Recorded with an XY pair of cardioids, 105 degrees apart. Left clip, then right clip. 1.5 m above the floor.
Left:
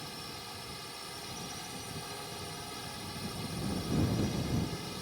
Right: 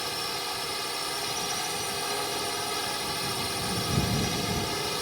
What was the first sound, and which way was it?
A drone, 65° right.